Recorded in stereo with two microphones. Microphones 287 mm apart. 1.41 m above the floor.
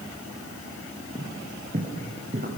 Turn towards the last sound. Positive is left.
turn(degrees=-35)  # may be behind; listen again after turning